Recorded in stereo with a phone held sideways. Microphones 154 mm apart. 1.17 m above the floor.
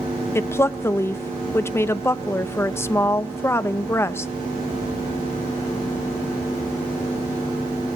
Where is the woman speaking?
15° left (ahead or behind), 0.8 m.